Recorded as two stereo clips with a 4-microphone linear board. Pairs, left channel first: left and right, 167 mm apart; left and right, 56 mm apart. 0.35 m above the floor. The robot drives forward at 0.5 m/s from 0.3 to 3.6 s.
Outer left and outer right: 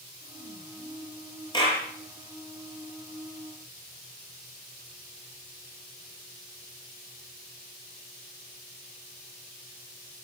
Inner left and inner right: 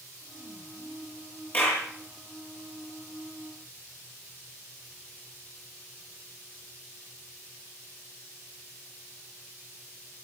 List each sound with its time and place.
1.5 s a clap: 30° left (ahead or behind), 7 m; by 1.8 s 25° left (ahead or behind), 7 m